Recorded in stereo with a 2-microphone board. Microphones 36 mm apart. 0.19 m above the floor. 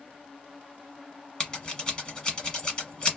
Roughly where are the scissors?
Left.